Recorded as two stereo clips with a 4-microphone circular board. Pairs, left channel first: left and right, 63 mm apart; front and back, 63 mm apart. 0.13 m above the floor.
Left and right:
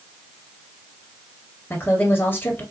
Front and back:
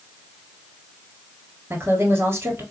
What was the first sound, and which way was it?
A woman speaking, 135° left.